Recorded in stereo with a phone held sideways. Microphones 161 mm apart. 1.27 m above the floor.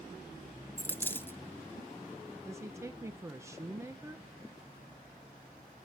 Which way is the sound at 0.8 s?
15° left (ahead or behind).